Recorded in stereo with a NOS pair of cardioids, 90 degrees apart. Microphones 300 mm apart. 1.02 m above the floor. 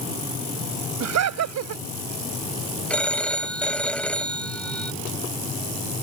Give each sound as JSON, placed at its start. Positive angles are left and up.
{"t": 1.0, "sound": "laughter", "azimuth_deg": -60}
{"t": 2.9, "sound": "a phone ringing", "azimuth_deg": 5}